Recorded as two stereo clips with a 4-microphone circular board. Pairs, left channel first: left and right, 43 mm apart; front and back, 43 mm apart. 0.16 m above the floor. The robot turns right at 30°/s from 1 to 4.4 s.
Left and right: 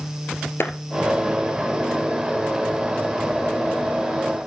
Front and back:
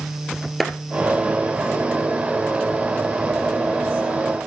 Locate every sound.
0.6 s a clap: 90° left, 2 m